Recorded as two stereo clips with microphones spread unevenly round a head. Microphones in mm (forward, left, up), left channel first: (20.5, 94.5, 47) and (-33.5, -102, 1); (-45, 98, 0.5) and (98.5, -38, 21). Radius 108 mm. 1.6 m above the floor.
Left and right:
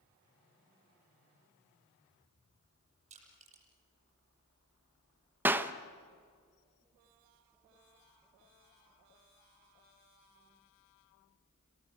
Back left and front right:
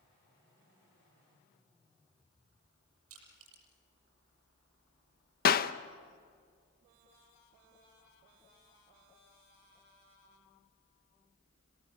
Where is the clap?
160° left, 0.9 m.